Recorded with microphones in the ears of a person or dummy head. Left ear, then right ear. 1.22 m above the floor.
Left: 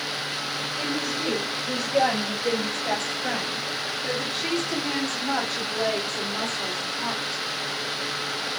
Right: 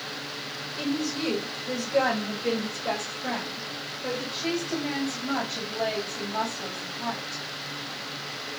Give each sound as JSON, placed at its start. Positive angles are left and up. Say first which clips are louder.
{"t": 0.8, "sound": "a woman speaking", "louder": "right 1 dB", "side_deg": -65, "distance_m": 3.5}